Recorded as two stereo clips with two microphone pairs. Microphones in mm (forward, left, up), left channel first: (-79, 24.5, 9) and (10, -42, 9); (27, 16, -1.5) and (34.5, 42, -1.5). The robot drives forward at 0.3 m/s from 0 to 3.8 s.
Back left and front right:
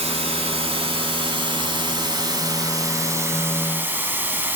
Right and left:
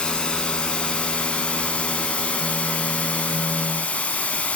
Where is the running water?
50° right, 1.5 m; by 4.5 s 110° right, 1.3 m.